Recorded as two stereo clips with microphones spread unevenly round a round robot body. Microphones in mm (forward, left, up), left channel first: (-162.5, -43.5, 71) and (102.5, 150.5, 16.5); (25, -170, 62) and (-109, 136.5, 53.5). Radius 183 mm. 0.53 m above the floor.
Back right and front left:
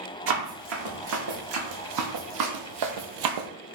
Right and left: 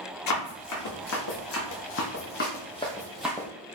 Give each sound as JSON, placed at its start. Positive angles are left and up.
{"t": 0.3, "sound": "running footsteps", "azimuth_deg": -25, "distance_m": 1.9}